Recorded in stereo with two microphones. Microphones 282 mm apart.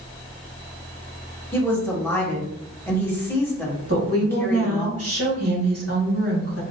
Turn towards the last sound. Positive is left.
turn(degrees=-55)  # may be behind; listen again after turning